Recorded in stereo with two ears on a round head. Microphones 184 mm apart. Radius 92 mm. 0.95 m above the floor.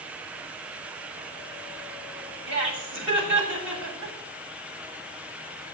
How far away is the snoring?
I don't hear snoring.